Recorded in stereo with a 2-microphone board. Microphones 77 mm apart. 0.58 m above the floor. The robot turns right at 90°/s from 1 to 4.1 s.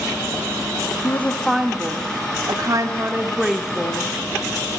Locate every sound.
1.0 s a woman speaking: 140° left, 1.0 m; by 4.1 s 55° left, 1.0 m